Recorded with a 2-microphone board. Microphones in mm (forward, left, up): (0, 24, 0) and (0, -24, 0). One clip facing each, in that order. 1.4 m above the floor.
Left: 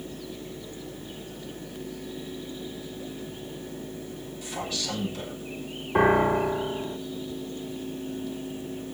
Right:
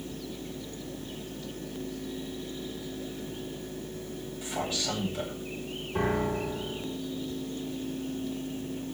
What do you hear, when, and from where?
4.4 s a man speaking: 25° right (ahead or behind), 9 m
6.0 s a piano: 50° left (ahead or behind), 0.8 m